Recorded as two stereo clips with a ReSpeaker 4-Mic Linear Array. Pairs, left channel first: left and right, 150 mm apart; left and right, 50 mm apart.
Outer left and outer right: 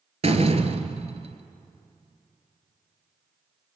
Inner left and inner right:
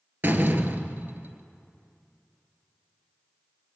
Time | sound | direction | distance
0.2 | a door slam | 45° right (ahead or behind) | 1.3 m